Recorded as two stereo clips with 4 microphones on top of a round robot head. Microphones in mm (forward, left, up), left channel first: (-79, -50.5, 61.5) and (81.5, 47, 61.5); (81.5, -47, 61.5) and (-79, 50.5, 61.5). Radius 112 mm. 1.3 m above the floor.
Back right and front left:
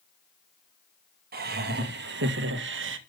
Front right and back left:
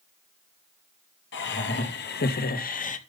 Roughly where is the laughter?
Ahead.